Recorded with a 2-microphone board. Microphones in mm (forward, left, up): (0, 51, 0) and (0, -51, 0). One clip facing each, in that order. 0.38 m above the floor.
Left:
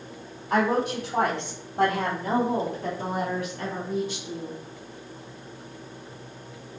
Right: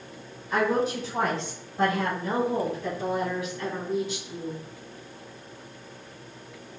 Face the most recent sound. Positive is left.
turn(degrees=30)  # may be behind; listen again after turning